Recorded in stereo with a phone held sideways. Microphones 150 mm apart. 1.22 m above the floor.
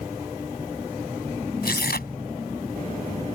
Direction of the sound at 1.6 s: 85° left.